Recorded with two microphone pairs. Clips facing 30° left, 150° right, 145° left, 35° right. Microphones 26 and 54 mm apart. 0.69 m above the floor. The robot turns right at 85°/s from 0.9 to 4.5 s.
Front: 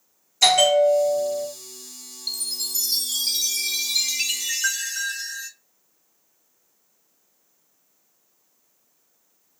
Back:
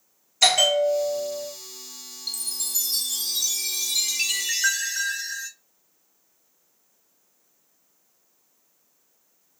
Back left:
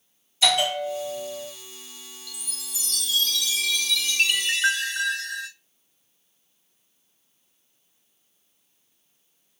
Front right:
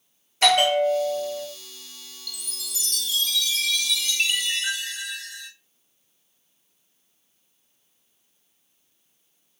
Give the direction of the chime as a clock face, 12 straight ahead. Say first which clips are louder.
Front 3 dB, front right 4 dB; 2 o'clock.